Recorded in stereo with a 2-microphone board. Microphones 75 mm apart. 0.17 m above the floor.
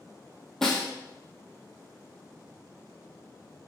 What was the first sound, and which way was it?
A snare drum, 5° left (ahead or behind).